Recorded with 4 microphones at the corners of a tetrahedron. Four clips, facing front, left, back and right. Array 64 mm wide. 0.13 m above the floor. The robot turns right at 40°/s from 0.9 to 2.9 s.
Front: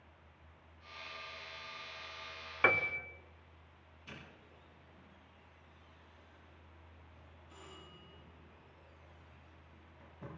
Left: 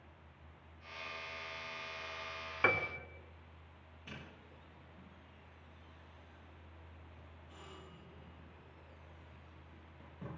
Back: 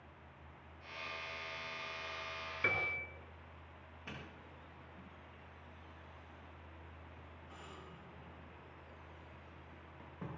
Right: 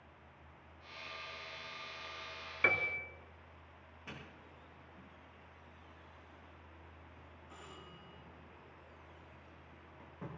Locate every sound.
2.6 s a piano: 20° left, 0.8 m; by 3.1 s 30° left, 0.8 m
4.1 s a doorbell: 155° right, 8.5 m